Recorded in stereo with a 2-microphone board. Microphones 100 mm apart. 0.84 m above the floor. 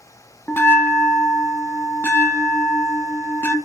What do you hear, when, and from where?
0.5 s a bell: 20° left (ahead or behind), 0.5 m